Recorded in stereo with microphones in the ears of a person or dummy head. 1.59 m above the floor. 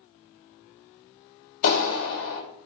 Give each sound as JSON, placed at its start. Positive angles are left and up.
{"t": 1.6, "sound": "a clap", "side_deg": 70, "distance_m": 1.8}